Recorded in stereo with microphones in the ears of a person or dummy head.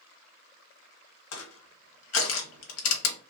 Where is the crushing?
85° left, 1.0 m.